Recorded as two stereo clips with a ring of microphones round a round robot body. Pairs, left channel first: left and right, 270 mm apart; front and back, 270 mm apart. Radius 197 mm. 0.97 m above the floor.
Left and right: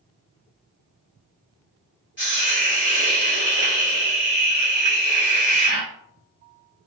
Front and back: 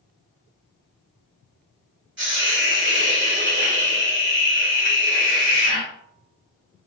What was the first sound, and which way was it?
A hiss, 135° left.